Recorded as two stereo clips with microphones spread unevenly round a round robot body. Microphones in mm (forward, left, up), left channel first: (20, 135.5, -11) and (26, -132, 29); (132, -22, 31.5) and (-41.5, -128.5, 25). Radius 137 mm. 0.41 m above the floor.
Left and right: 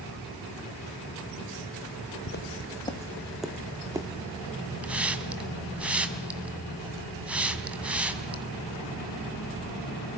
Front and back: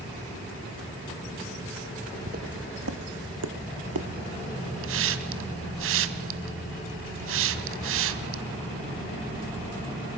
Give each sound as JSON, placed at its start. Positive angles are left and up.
{"t": 2.3, "sound": "footsteps", "azimuth_deg": 145, "distance_m": 1.6}
{"t": 4.8, "sound": "a hiss", "azimuth_deg": -175, "distance_m": 1.7}